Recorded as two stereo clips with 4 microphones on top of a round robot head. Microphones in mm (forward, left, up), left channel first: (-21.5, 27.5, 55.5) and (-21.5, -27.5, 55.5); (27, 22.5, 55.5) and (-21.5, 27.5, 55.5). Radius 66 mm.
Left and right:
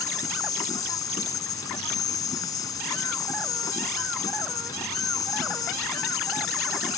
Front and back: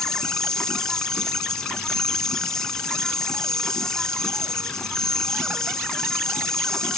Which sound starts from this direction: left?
An insect, at 0.0 s.